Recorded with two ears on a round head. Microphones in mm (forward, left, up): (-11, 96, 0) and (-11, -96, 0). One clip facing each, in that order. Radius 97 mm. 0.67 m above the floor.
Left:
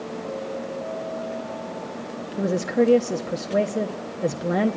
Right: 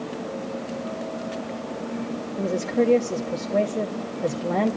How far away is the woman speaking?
About 0.6 m.